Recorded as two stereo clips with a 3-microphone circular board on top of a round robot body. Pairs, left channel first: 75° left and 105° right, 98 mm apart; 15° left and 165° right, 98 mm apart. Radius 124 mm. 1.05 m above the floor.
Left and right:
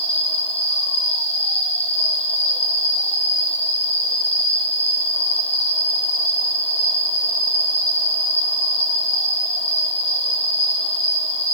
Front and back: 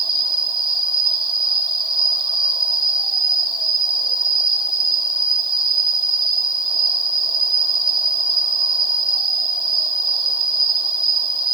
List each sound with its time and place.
0.0 s an insect: 60° left, 2.5 m